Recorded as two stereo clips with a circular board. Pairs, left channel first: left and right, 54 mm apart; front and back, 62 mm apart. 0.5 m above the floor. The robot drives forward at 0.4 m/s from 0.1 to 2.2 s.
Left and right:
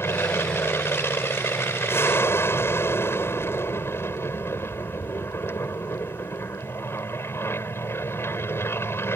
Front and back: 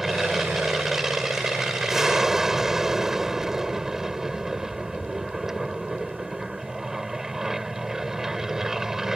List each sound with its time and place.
0.0 s an aircraft: 95° left; by 9.2 s 100° left